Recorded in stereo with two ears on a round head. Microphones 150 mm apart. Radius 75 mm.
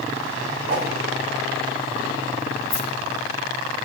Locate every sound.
0.7 s a whoosh: 60° right (ahead or behind), 3.5 m
2.7 s keys jangling: 70° right (ahead or behind), 5.5 m